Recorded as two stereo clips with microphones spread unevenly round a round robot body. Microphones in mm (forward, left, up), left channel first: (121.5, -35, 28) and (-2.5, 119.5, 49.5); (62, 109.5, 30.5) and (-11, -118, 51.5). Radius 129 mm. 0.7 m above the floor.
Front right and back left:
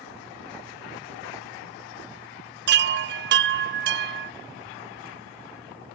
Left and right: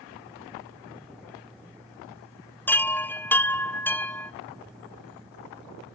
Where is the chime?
150° left, 0.6 m.